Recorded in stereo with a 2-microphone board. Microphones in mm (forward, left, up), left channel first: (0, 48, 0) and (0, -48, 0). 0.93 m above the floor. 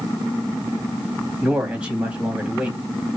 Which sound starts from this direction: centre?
A man speaking, at 1.4 s.